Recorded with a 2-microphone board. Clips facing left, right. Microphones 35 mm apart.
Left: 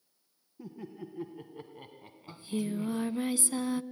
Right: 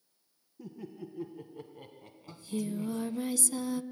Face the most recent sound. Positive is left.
turn(degrees=30)  # may be behind; listen again after turning